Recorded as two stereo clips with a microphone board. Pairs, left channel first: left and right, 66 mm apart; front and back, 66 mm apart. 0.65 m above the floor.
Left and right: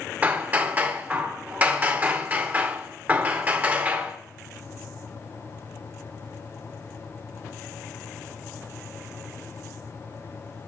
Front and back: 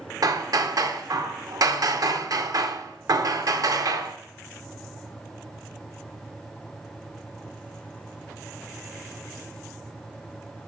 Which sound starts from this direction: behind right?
Hammering, at 0.2 s.